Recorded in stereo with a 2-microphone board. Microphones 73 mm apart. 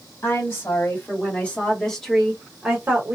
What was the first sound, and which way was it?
A woman speaking, 40° left (ahead or behind).